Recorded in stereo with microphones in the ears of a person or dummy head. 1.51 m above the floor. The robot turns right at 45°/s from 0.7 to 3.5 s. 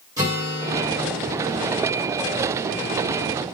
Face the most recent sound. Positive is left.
turn(degrees=105)